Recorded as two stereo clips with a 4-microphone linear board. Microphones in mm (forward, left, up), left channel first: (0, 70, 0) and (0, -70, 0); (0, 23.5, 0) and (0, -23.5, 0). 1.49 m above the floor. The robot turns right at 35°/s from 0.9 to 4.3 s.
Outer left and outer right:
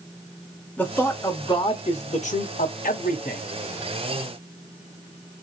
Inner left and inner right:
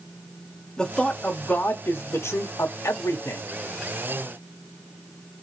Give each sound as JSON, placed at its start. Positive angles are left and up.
{"t": 0.8, "sound": "a man speaking", "azimuth_deg": 10, "distance_m": 1.0}